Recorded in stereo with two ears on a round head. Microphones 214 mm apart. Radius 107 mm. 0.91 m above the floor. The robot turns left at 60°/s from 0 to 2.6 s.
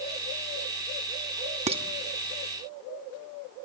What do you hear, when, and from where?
1.7 s dishes clattering: 30° right (ahead or behind), 0.9 m; by 1.8 s 20° right (ahead or behind), 0.9 m